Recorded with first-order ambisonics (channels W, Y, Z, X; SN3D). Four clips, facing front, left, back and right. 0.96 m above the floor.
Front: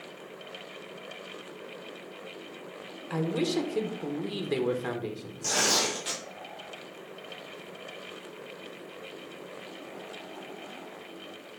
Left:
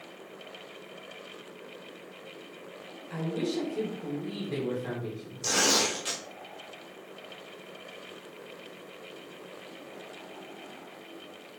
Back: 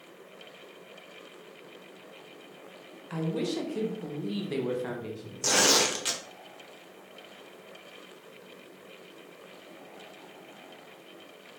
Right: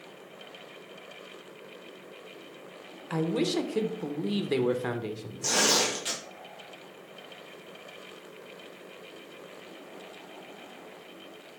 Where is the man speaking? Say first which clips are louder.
Right 4 dB, front 3 dB; 70° right, 0.6 m.